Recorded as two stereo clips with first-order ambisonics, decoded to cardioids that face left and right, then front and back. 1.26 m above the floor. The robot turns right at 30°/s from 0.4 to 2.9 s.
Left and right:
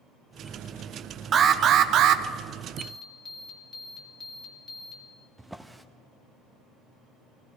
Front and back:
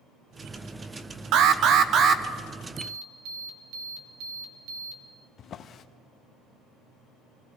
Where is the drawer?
5° right, 0.5 m.